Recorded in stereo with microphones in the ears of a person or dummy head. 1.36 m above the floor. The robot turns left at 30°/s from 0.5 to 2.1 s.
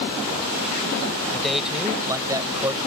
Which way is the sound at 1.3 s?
10° left (ahead or behind).